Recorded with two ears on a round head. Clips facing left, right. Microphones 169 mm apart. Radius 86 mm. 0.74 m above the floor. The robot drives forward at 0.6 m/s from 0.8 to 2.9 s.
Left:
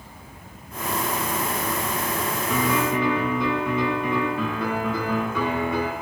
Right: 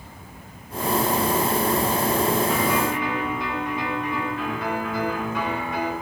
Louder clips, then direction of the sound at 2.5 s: Even; 85° left.